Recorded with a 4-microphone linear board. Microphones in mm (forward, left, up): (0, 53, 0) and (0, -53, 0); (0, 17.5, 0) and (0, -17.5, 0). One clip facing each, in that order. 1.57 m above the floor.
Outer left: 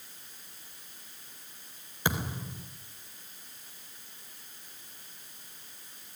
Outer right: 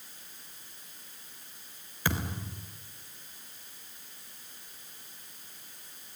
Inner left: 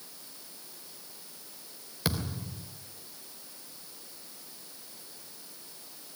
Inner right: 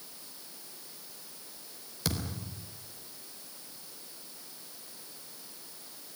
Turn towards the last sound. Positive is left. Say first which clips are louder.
# outer left 1 dB, inner left 2 dB
turn(degrees=20)  # may be behind; listen again after turning